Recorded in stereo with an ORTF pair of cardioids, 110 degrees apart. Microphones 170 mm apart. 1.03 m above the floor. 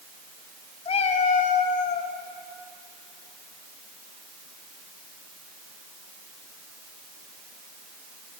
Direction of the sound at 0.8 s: 35° left.